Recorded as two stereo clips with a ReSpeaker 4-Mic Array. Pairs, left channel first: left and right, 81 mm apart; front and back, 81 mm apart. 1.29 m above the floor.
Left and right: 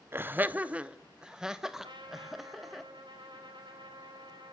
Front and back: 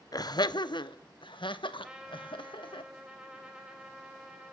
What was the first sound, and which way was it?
Laughter, 30° right.